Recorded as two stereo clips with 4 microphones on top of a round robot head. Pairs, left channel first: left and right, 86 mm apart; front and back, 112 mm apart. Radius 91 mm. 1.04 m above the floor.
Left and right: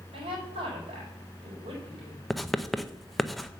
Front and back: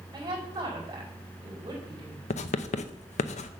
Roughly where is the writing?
Ahead.